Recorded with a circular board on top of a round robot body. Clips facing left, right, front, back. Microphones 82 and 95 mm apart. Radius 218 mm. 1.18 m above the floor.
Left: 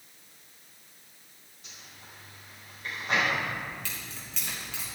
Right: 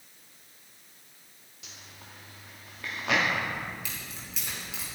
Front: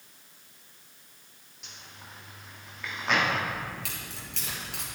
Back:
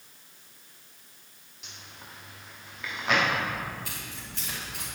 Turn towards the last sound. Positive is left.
turn(degrees=-10)